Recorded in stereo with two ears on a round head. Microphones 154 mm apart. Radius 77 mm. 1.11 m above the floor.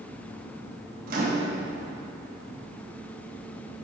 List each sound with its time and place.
1.1 s a microwave: 55° right (ahead or behind), 1.3 m